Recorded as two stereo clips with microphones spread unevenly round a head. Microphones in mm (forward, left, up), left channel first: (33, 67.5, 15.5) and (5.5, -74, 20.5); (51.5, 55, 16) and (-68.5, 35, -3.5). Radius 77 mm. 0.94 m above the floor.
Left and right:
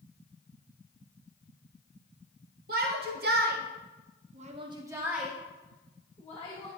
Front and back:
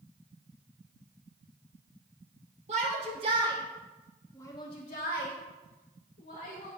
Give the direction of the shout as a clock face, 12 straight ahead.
4 o'clock.